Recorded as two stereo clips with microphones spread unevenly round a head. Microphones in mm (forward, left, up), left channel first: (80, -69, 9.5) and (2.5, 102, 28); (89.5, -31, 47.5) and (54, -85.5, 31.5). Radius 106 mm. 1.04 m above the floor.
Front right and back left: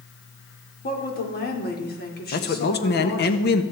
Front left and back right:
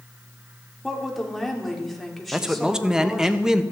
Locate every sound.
0.8 s a woman speaking: 30° right, 3.5 m
2.3 s a man speaking: 50° right, 1.3 m